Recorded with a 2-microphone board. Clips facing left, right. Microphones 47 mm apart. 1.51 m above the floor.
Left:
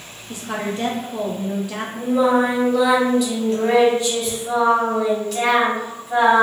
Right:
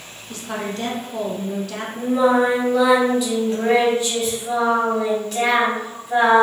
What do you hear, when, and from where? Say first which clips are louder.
0.3 s a woman speaking: left 2 dB; 20° left (ahead or behind), 0.7 m
1.9 s singing: even; 5° right (ahead or behind), 1.5 m